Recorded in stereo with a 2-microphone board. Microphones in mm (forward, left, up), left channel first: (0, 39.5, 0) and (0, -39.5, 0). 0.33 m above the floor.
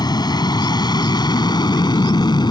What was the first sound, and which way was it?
An aircraft, 60° left (ahead or behind).